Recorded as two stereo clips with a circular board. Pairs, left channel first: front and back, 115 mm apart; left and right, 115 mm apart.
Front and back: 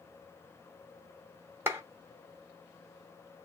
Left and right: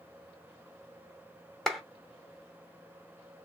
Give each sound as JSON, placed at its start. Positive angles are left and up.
{"t": 1.7, "sound": "a clap", "azimuth_deg": 170, "distance_m": 0.8}